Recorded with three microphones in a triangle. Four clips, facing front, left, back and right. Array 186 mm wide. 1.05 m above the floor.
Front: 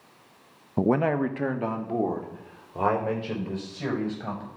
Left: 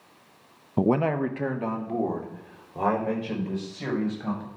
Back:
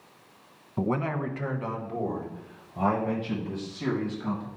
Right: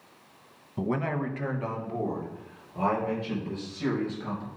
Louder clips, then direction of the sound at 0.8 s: Left 7 dB, front 6 dB; 50° left.